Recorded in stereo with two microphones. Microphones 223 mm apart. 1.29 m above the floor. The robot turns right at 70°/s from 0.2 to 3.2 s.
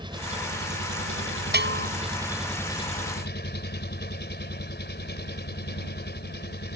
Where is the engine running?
160° right; by 6.8 s 50° left.